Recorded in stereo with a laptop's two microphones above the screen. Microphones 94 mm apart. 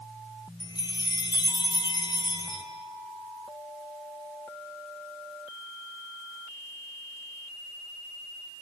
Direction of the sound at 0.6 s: 50° left (ahead or behind).